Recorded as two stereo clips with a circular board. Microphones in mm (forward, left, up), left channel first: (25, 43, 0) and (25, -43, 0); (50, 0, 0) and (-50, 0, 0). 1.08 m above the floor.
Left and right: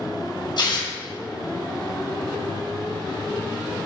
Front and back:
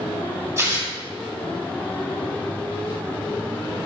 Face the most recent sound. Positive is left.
turn(degrees=120)